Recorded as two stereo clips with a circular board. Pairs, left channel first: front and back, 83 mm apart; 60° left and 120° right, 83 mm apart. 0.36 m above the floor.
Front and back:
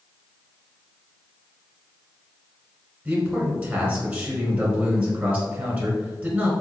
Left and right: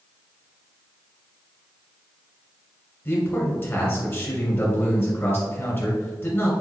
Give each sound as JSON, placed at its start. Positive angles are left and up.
{"t": 3.0, "sound": "a man speaking", "azimuth_deg": 110, "distance_m": 1.9}